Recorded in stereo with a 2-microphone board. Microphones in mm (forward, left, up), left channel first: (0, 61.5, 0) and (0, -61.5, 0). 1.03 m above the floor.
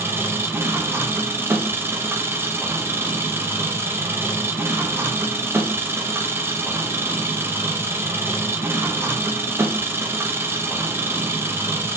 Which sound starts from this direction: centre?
An engine running, at 0.0 s.